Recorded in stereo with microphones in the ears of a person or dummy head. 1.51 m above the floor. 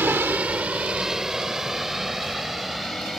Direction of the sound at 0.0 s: 10° right (ahead or behind).